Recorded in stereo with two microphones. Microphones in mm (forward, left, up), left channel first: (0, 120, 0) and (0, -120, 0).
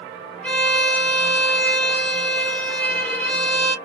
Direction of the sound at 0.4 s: 5° left (ahead or behind).